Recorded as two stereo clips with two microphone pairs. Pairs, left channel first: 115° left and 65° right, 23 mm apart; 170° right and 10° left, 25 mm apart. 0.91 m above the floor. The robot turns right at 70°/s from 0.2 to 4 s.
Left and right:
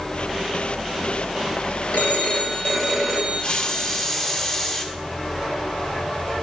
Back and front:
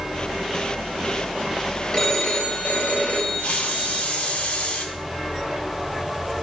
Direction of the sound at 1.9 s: 130° left.